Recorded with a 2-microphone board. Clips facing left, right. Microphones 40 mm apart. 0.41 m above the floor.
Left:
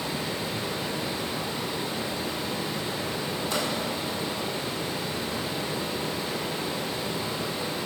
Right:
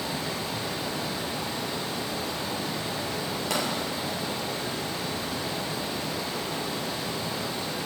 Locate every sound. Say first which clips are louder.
0.0 s running water: left 1 dB; 25° left (ahead or behind), 3 m
3.5 s a pop: right 1 dB; 80° right, 2.5 m